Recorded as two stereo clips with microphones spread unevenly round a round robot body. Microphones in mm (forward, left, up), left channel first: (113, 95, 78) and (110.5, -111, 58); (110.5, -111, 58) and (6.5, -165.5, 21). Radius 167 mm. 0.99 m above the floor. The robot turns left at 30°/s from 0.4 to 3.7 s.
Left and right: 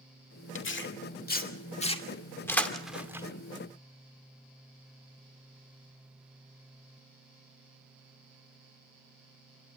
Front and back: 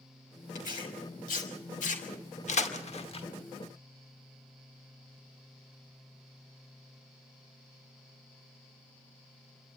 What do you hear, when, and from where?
0.6 s tearing paper: 70° left, 2.5 m; by 3.3 s 15° right, 2.5 m